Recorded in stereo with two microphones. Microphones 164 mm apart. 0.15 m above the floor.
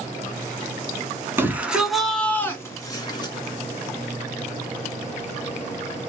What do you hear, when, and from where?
1.4 s a shout: 15° right (ahead or behind), 1.3 m; by 3.3 s 30° left (ahead or behind), 1.6 m